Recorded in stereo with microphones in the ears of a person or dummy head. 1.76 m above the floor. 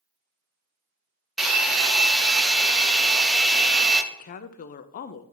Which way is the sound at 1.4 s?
Centre (ahead or behind).